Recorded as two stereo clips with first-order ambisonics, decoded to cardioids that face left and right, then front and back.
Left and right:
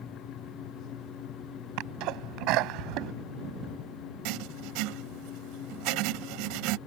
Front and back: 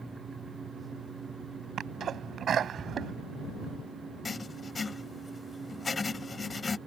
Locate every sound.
1.8 s a sneeze: 120° right
4.2 s writing: 75° right